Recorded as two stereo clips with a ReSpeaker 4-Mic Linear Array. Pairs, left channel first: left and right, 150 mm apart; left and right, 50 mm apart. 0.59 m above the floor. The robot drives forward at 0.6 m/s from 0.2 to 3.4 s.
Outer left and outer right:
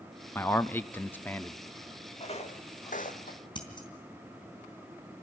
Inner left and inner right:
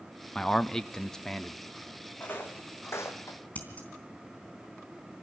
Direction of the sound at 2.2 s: 40° left (ahead or behind).